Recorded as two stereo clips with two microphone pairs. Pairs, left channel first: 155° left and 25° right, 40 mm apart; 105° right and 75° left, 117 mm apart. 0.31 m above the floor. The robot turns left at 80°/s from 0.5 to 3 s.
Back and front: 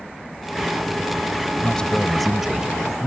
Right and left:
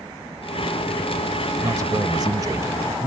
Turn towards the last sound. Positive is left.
turn(degrees=5)